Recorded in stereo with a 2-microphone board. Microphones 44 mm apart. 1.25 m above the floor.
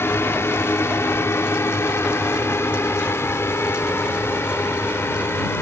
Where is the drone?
65° left (ahead or behind).